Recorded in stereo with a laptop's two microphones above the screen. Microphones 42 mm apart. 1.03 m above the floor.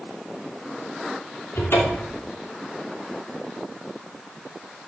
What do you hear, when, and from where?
1.6 s a cupboard door: 80° left, 2.5 m